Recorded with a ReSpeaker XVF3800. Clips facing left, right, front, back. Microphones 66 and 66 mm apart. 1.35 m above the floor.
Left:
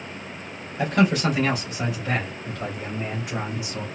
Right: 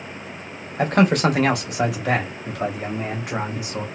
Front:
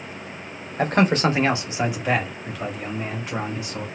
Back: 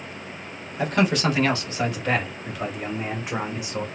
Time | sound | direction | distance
0.8 | a man speaking | 45° right | 1.0 m